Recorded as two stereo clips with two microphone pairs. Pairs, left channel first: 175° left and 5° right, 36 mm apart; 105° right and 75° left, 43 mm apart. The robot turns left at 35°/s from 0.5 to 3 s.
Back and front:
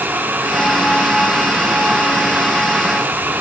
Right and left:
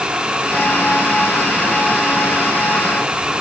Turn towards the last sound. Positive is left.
No sound to turn to.